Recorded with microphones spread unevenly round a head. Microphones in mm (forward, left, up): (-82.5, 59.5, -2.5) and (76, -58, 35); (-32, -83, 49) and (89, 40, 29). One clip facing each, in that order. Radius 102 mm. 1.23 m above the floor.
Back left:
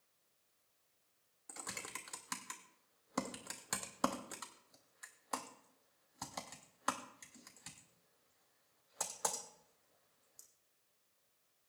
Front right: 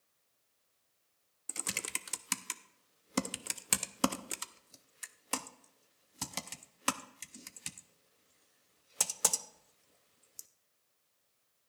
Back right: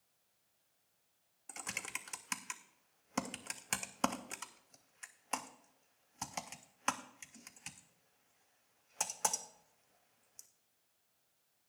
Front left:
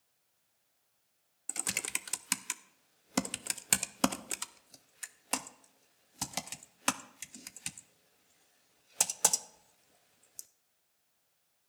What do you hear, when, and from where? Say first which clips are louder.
1.5 s typing on a keyboard: front right 5 dB, front left 5 dB; 15° left, 0.5 m